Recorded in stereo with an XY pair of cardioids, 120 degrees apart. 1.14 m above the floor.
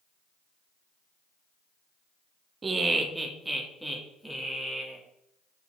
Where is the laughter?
25° right, 1.1 m; by 5.0 s 10° left, 3 m.